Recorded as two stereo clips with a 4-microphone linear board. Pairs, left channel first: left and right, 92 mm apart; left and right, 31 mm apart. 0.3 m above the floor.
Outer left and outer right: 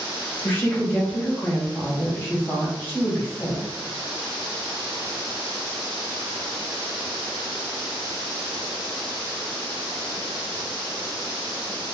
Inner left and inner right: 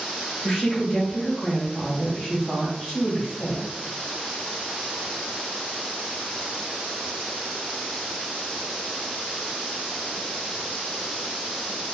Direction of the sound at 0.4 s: 20° left (ahead or behind).